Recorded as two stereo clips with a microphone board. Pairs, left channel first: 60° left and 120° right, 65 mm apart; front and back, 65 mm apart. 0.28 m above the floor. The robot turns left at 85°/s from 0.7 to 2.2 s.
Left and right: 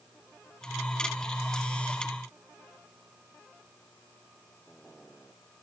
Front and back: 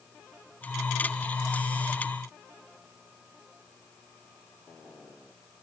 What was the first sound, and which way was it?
Only background noise.